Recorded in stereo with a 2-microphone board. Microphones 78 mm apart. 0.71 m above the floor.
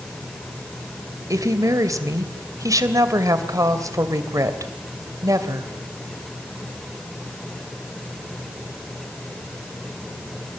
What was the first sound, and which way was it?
A woman speaking, 50° right (ahead or behind).